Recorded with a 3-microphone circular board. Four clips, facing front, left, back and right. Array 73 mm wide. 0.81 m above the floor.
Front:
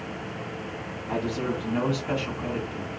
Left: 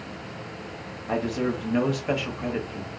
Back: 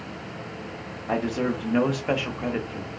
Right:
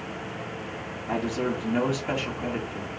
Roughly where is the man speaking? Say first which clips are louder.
Left 1 dB, back 3 dB; behind.